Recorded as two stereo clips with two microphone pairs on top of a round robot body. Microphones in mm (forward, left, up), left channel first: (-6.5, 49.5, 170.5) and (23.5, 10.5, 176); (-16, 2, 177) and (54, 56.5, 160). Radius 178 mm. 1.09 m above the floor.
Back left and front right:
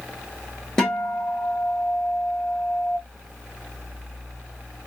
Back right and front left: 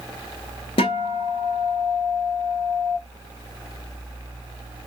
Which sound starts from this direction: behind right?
A guitar, at 0.8 s.